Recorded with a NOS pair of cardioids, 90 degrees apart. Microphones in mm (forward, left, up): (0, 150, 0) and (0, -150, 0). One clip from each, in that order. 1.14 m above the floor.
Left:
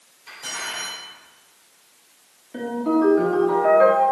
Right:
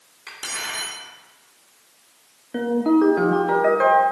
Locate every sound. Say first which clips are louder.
0.3 s cutlery clinking: right 1 dB; 70° right, 1.9 m
2.5 s a ringtone: right 3 dB; 40° right, 0.9 m